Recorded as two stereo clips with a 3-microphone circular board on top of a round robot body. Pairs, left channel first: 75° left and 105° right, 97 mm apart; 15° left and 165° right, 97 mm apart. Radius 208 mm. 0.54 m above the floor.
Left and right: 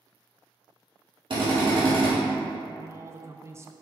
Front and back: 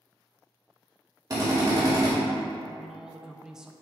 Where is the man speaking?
85° right, 0.6 m.